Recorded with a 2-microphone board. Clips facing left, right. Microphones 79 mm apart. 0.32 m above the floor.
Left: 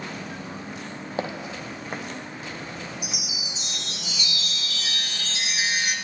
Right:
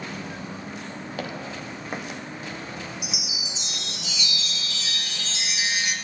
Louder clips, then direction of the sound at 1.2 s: Left 4 dB; 25° left (ahead or behind).